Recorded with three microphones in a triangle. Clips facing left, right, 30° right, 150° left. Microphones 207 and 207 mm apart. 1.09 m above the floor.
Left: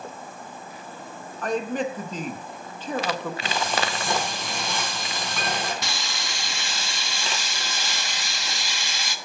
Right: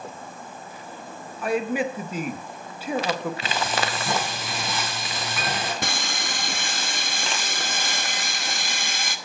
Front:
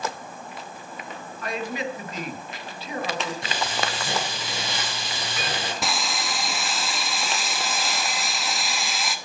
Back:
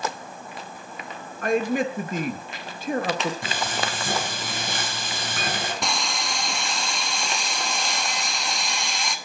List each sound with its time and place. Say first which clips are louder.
1.4 s a man speaking: right 2 dB, back 7 dB; 170° right, 0.9 m
3.4 s frying: even, even; 175° right, 3.5 m
5.8 s sawing: right 4 dB, even; 115° right, 0.9 m